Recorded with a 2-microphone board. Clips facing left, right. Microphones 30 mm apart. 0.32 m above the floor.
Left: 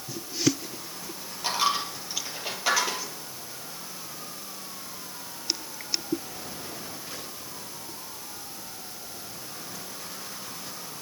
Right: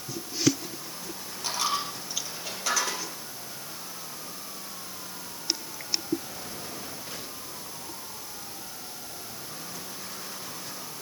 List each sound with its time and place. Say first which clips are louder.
1.4 s a dropped coin: left 3 dB; 20° left (ahead or behind), 4.5 m